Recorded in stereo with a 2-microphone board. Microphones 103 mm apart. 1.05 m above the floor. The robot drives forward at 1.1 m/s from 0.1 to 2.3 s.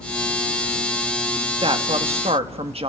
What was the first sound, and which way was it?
A man speaking, 60° right (ahead or behind).